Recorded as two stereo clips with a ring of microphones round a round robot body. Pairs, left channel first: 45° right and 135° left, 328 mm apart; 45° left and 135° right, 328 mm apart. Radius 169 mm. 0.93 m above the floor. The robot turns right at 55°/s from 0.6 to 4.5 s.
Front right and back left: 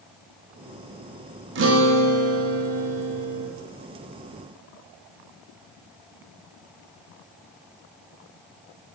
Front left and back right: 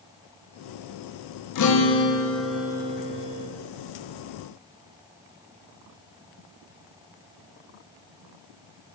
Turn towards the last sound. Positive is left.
turn(degrees=-120)